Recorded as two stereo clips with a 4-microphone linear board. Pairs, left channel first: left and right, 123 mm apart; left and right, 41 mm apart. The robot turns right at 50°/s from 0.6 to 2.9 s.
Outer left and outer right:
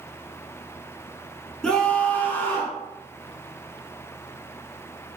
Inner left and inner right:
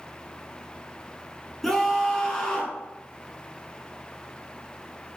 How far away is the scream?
About 1.2 m.